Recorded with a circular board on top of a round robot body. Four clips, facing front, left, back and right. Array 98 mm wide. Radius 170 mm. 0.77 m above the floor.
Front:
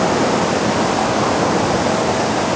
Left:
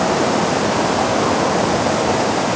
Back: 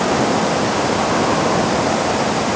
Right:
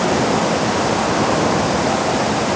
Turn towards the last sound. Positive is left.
No sound to turn to.